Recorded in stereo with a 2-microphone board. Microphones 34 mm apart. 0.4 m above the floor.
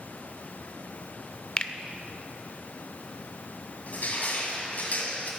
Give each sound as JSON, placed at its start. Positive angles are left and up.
{"t": 1.6, "sound": "a finger snap", "side_deg": 30, "distance_m": 0.6}
{"t": 3.9, "sound": "crushing", "side_deg": 50, "distance_m": 2.5}